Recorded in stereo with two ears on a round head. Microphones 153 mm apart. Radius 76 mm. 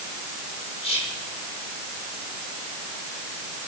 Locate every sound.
0.8 s whispering: 35° left (ahead or behind), 5.5 m